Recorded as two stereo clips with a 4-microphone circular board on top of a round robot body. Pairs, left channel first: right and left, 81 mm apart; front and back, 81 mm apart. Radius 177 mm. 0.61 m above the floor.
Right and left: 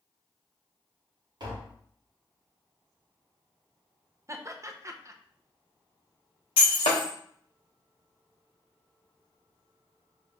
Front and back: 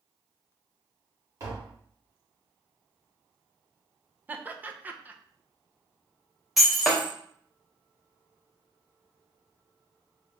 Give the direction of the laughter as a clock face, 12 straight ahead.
8 o'clock.